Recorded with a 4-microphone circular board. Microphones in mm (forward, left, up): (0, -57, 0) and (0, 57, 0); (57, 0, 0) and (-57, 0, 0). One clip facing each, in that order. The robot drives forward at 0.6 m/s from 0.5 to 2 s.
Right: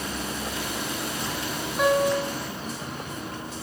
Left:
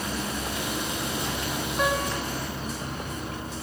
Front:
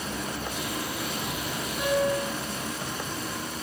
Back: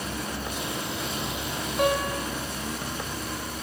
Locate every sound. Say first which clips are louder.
1.8 s a piano: right 7 dB, even; 175° right, 3 m